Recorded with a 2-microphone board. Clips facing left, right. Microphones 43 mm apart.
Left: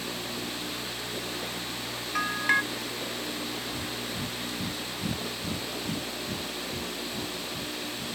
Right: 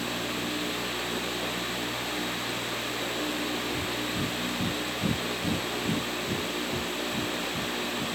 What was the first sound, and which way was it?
A bell, 80° left.